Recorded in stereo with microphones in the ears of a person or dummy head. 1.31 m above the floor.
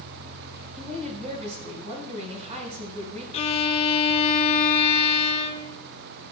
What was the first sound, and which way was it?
A woman speaking, 40° right (ahead or behind).